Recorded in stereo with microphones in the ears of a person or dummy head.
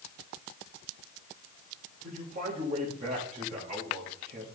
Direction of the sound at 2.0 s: 35° right (ahead or behind).